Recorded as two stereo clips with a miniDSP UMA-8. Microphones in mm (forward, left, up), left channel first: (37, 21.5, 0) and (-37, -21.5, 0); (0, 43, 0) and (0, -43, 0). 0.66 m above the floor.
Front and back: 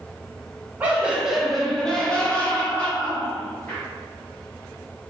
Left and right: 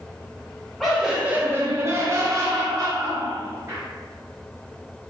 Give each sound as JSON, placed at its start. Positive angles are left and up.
{"t": 0.8, "sound": "laughter", "azimuth_deg": 175, "distance_m": 0.6}